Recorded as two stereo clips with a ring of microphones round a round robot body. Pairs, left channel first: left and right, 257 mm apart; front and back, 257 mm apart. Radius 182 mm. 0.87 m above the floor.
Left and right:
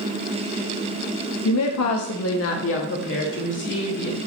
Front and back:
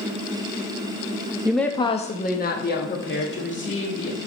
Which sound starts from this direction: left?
A woman speaking, at 1.4 s.